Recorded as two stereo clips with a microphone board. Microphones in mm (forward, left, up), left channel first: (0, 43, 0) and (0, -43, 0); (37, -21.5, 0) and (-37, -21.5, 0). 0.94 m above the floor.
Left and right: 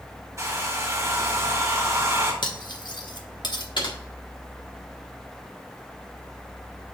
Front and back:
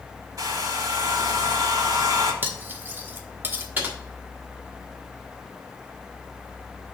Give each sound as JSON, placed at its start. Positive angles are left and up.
{"t": 0.4, "sound": "a hair dryer", "azimuth_deg": -145, "distance_m": 1.9}
{"t": 2.4, "sound": "cutlery clinking", "azimuth_deg": 115, "distance_m": 0.9}
{"t": 3.8, "sound": "typing on a keyboard", "azimuth_deg": 115, "distance_m": 1.6}